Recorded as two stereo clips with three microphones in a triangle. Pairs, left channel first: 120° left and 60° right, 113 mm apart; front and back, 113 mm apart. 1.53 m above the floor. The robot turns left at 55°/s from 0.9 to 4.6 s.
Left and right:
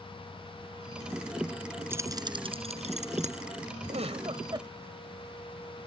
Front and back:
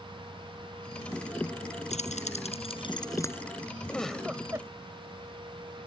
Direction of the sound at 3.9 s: 80° right.